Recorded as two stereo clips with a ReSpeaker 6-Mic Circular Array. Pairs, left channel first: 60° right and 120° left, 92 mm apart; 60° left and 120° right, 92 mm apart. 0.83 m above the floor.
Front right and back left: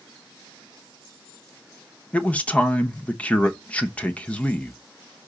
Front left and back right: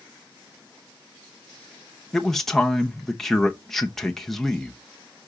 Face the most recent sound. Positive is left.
turn(degrees=-20)